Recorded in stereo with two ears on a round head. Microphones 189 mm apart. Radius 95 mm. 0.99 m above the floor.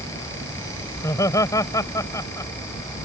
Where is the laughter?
15° left (ahead or behind).